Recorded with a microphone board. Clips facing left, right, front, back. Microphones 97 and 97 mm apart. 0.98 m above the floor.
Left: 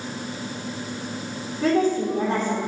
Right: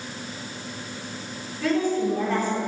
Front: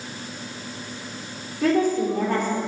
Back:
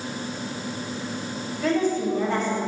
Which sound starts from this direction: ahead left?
A woman speaking, at 1.6 s.